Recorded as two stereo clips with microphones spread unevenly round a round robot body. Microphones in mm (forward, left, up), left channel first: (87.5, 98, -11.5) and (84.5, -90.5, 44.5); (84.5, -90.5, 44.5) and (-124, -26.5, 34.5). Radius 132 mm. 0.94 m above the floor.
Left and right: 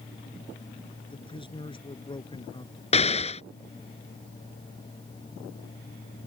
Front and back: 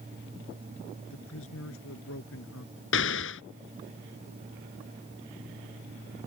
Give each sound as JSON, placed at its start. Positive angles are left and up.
{"t": 1.1, "sound": "a man speaking", "azimuth_deg": 25}
{"t": 2.9, "sound": "an explosion", "azimuth_deg": 30}